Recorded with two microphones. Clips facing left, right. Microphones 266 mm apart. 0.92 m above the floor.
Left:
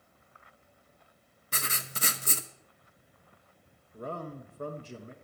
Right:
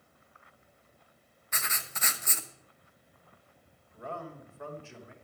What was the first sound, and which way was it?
Writing, 35° left (ahead or behind).